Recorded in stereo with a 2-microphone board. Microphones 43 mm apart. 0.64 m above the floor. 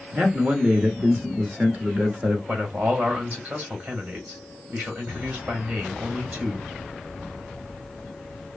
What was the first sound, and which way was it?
A man speaking, 35° right (ahead or behind).